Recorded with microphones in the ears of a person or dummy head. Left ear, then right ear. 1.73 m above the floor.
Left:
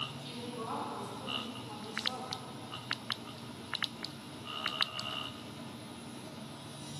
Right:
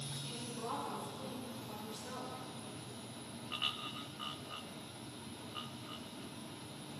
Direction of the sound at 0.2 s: 5° left (ahead or behind).